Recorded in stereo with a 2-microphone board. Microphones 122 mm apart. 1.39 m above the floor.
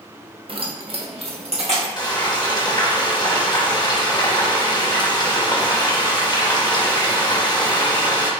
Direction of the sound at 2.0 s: 35° left (ahead or behind).